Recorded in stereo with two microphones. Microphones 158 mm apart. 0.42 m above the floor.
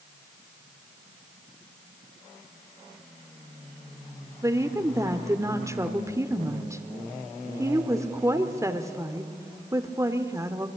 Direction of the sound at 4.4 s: 20° right (ahead or behind).